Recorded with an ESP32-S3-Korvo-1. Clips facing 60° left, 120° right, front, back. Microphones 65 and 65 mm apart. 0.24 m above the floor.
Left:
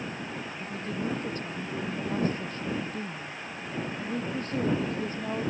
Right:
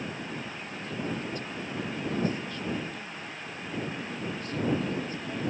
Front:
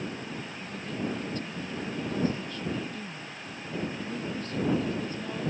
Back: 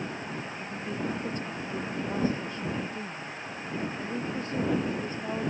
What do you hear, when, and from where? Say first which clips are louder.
0.6 s a woman speaking: left 5 dB, even; 115° left